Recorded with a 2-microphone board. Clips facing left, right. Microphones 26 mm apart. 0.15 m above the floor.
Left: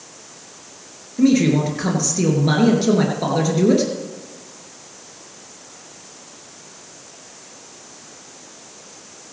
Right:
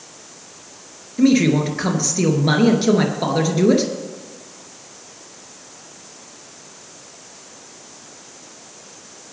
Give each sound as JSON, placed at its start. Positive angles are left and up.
{"t": 1.2, "sound": "a man speaking", "side_deg": -20, "distance_m": 2.5}